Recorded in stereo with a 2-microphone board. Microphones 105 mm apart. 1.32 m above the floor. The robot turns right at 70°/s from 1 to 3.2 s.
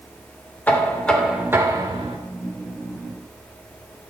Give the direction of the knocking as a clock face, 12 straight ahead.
7 o'clock.